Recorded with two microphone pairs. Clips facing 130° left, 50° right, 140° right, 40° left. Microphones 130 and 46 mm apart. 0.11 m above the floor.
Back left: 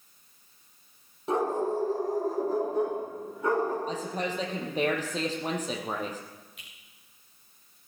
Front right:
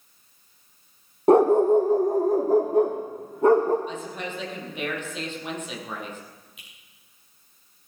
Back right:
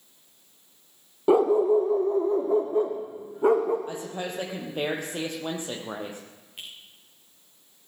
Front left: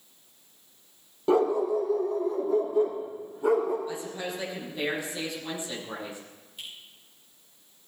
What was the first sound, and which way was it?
A dog barking, 70° right.